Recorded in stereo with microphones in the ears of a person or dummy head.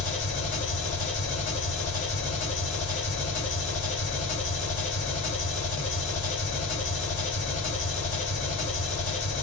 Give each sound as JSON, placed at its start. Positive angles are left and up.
{"t": 0.0, "sound": "an engine running", "side_deg": 35, "distance_m": 1.6}